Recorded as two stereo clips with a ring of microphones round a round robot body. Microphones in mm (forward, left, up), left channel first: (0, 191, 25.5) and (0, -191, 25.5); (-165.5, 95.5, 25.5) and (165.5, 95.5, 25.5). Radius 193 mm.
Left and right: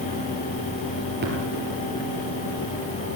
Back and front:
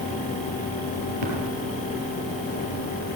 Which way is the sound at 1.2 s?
25° right.